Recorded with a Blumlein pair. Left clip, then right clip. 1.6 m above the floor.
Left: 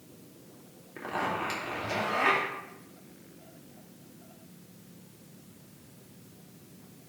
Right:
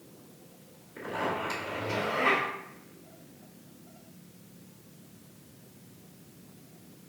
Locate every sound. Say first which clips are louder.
1.0 s a zipper: even; 20° left, 3 m